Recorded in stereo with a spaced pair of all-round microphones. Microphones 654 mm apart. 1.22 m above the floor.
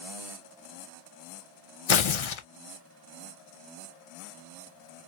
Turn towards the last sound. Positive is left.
turn(degrees=50)  # may be behind; listen again after turning